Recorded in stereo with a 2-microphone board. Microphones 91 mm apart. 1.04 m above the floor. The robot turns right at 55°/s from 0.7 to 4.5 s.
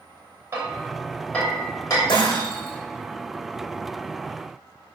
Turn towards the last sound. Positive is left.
turn(degrees=-170)